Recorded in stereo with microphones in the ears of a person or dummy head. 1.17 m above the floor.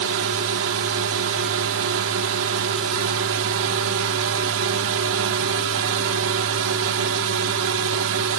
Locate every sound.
0.0 s a drone: 70° right (ahead or behind)